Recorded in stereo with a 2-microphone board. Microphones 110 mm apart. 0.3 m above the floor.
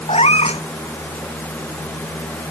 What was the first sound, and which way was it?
A cat meowing, 65° left (ahead or behind).